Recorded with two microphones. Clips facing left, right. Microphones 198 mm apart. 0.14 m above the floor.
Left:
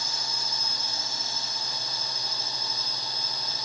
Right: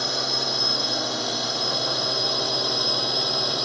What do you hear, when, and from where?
0.0 s a drone: 70° right (ahead or behind); by 3.7 s 75° right (ahead or behind)